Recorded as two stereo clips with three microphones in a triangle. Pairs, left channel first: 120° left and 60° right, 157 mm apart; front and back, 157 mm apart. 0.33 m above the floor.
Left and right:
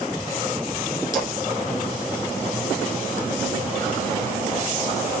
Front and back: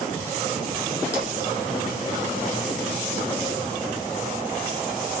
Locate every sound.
1.1 s a splash: 170° right, 1.5 m